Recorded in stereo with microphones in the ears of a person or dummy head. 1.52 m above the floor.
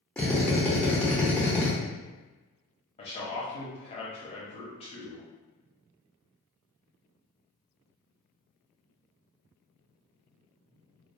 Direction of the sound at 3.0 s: 30° left (ahead or behind).